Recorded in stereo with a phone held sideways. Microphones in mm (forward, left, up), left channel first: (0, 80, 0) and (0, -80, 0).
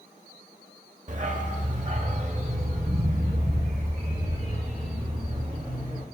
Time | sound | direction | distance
1.1 | a dog barking | 50° right (ahead or behind) | 0.8 m